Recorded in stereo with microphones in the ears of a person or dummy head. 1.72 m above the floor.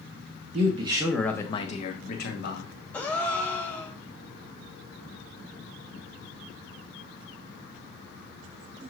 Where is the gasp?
10° left (ahead or behind), 0.6 m.